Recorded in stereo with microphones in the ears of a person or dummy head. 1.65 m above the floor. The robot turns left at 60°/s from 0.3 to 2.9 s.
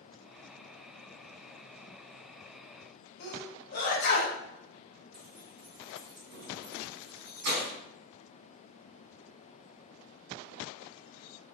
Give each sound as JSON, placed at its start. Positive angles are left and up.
{"t": 3.2, "sound": "a sneeze", "side_deg": 50, "distance_m": 0.8}
{"t": 5.1, "sound": "keys jangling", "side_deg": -55, "distance_m": 1.1}